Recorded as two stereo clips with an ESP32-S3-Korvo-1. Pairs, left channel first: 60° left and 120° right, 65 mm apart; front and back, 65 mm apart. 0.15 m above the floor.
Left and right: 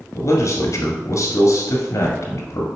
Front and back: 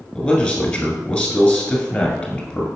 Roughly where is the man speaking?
Left.